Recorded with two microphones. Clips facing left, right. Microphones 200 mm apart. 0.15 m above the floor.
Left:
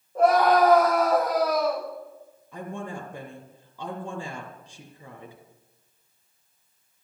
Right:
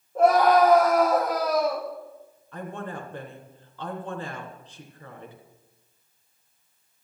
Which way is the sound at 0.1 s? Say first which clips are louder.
Right 1 dB; centre (ahead or behind).